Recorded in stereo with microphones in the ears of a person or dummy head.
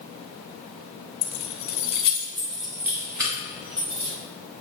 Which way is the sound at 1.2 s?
75° left (ahead or behind).